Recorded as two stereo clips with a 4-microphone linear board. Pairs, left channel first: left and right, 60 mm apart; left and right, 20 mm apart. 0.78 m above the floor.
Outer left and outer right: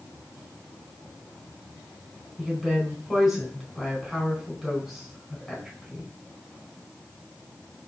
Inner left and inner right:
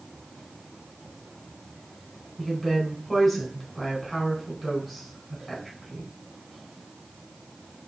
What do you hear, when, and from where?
2.4 s a woman speaking: centre (ahead or behind), 4.5 m